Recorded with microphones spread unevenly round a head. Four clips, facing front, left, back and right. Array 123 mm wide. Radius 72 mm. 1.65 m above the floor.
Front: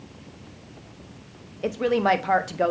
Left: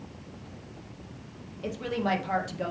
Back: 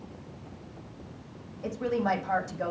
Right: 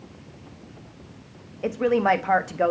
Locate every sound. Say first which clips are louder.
1.6 s a woman speaking: right 9 dB, front 7 dB; 35° right, 1.1 m